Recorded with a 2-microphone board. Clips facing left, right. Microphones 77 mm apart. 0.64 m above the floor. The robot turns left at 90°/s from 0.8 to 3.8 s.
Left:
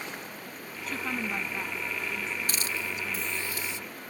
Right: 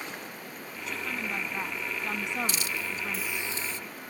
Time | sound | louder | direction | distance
0.9 | a woman speaking | left 2 dB | 50° left | ?
2.5 | a hiss | even | 60° left | ?